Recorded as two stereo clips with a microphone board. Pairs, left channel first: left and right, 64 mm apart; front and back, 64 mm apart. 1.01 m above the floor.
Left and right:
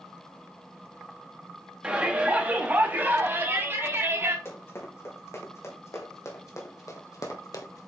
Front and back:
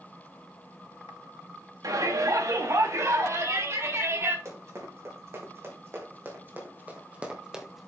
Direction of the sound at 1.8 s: 165° right.